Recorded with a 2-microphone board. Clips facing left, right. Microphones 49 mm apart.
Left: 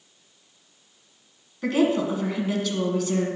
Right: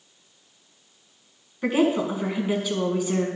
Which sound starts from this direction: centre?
A woman speaking, at 1.6 s.